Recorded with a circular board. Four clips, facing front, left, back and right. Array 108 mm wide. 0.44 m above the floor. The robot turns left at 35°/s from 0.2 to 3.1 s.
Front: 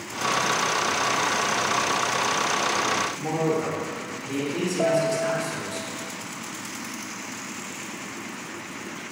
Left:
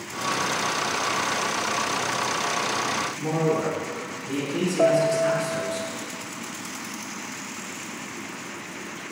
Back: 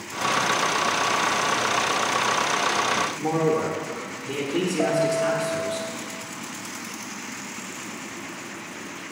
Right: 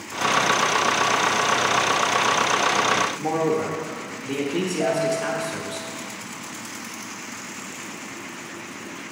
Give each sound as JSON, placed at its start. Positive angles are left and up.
{"t": 3.2, "sound": "a man speaking", "azimuth_deg": -125, "distance_m": 0.8}
{"t": 4.8, "sound": "a piano", "azimuth_deg": 85, "distance_m": 0.7}